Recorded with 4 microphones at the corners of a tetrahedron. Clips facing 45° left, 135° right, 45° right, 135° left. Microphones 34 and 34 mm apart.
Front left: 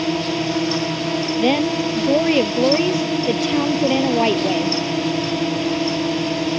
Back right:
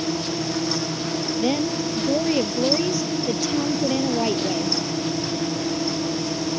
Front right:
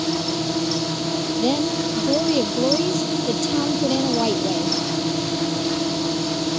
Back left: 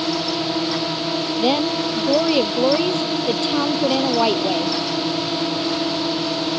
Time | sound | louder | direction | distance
0.0 | a drone | front left 5 dB, back left 1 dB | 75° left | ?
1.4 | a woman speaking | front left 5 dB, back left 2 dB | 85° left | ?